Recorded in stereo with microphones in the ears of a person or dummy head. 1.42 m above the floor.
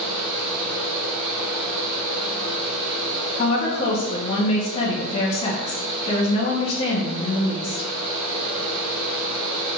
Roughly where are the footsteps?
I don't hear footsteps.